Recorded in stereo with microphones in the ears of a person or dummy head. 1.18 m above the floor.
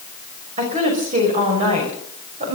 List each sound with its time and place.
0.6 s a woman speaking: 40° right (ahead or behind), 5.5 m